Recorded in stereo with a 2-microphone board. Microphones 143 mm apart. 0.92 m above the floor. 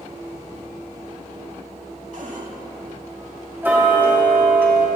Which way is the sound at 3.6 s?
15° right (ahead or behind).